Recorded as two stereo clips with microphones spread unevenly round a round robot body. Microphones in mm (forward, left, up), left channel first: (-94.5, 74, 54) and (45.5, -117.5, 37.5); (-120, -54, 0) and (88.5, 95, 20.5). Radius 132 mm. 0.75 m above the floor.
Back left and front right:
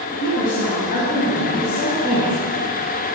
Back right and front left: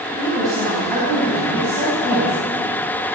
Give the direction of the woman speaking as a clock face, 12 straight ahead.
9 o'clock.